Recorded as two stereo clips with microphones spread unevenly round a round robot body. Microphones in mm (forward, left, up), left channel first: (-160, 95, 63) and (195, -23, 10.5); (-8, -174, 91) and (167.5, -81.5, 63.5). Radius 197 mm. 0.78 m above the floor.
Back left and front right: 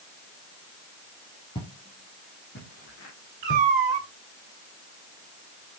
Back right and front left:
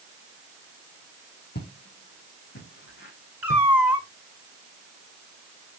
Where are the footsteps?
125° right, 2.0 m; by 3.7 s 145° right, 3.5 m.